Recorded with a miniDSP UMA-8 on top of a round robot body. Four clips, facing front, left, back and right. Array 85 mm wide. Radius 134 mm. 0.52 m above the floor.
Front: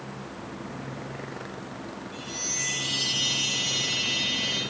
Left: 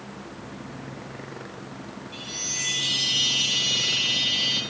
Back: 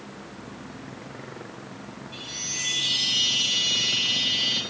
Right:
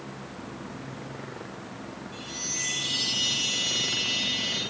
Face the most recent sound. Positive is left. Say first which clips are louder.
# left 1 dB, front 3 dB
turn(degrees=145)